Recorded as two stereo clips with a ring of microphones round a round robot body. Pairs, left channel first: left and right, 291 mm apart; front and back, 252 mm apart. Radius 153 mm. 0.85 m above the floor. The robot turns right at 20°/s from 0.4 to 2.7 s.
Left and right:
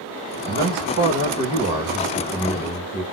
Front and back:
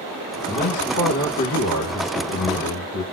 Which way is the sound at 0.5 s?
50° right.